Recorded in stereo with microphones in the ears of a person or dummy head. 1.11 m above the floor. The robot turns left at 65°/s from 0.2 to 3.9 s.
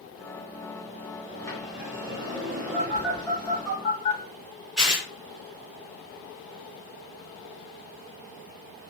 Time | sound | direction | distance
1.3 | a sliding door | 30° left | 1.5 m
2.7 | a phone buzzing | 30° right (ahead or behind) | 1.5 m
4.8 | tearing paper | 5° right (ahead or behind) | 1.0 m